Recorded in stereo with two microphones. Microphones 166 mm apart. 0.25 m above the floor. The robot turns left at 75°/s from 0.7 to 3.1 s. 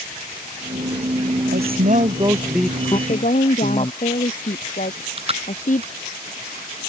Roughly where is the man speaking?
Right.